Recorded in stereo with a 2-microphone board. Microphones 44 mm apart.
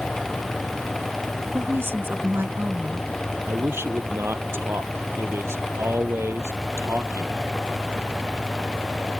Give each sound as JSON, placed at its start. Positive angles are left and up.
{"t": 1.5, "sound": "a woman speaking", "side_deg": -60}
{"t": 3.5, "sound": "a man speaking", "side_deg": -70}